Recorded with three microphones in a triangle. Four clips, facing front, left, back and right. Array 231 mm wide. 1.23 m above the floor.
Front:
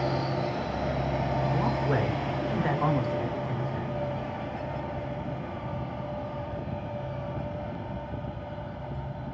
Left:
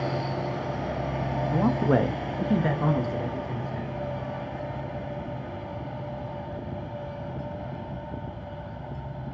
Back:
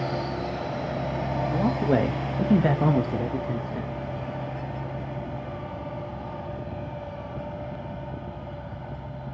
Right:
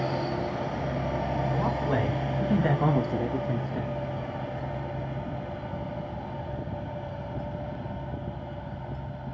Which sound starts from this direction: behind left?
A man speaking, at 1.5 s.